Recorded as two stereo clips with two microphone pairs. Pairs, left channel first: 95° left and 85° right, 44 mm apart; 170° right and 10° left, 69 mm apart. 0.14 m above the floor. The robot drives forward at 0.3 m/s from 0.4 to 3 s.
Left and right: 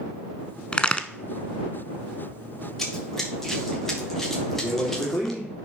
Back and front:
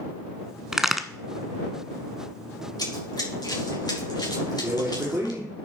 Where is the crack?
80° left, 0.8 m; by 1.1 s 100° left, 0.8 m.